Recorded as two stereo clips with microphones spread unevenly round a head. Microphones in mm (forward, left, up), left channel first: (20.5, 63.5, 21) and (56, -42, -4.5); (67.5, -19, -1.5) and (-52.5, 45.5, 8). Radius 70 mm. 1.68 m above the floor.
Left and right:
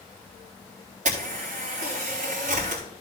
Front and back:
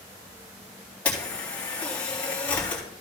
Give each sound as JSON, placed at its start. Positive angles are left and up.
{"t": 1.1, "sound": "a camera shutter", "azimuth_deg": -110, "distance_m": 3.5}